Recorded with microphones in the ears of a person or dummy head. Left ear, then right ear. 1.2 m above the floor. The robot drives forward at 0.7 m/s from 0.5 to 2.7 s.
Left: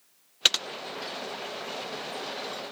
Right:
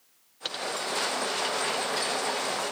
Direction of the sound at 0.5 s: 60° left (ahead or behind).